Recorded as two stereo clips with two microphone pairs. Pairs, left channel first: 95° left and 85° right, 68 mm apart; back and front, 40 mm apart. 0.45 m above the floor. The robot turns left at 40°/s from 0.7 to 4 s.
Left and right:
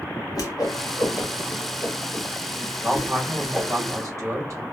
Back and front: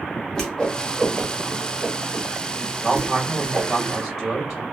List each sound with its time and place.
0.3 s a whoosh: 100° left, 0.9 m; by 3.8 s 25° right, 0.9 m
2.8 s a man speaking: 25° right, 1.8 m; by 4.6 s 75° right, 1.8 m